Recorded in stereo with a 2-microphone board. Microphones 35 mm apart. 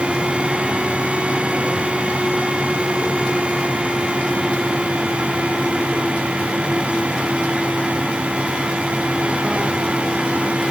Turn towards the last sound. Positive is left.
No sound to turn to.